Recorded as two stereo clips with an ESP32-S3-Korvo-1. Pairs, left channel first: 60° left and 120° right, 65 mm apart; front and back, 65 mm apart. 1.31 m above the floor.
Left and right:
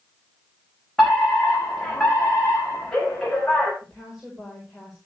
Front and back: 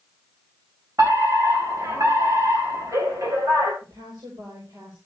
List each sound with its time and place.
1.0 s a fire alarm: 140° left, 6 m
3.8 s a woman speaking: 150° left, 5 m